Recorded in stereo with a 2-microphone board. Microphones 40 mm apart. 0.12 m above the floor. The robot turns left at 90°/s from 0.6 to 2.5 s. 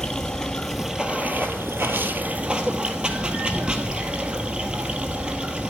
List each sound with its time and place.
0.0 s running water: 15° left, 1.2 m; by 5.7 s 155° right, 1.2 m